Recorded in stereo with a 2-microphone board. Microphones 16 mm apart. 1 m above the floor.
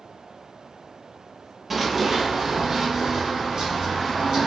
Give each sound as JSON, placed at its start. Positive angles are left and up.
{"t": 1.7, "sound": "running footsteps", "side_deg": -15, "distance_m": 1.0}